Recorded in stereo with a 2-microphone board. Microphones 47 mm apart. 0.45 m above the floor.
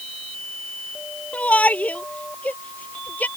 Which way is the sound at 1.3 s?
35° left (ahead or behind).